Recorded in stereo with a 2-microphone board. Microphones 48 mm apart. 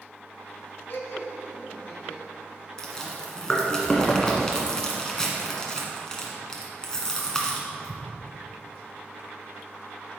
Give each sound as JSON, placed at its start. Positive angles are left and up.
{"t": 0.9, "sound": "laughter", "side_deg": 55, "distance_m": 2.0}
{"t": 2.8, "sound": "chewing", "side_deg": 15, "distance_m": 1.8}